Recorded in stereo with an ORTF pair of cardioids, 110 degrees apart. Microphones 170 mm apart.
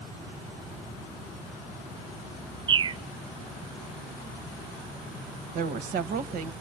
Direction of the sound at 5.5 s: 65° right.